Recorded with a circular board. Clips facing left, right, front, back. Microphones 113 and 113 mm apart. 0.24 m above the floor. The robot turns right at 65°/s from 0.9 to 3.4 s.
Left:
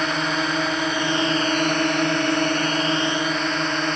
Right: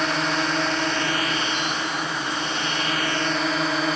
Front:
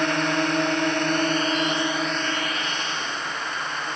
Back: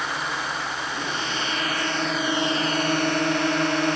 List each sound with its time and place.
0.0 s a drone: 5° left; by 4.0 s 175° right